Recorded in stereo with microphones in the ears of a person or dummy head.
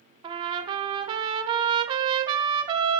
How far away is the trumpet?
About 1.1 m.